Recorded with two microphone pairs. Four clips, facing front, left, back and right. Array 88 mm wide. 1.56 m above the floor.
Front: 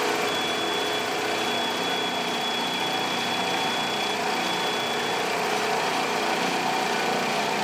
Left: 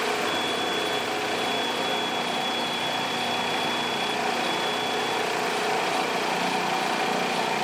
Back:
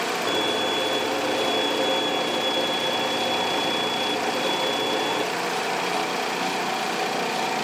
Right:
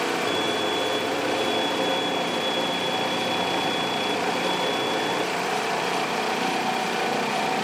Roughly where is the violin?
Behind right.